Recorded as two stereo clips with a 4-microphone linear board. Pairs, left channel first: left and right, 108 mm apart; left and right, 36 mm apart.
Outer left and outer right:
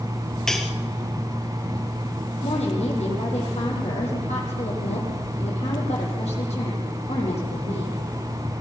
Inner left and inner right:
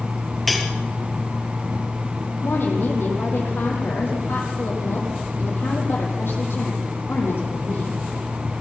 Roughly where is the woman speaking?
Left.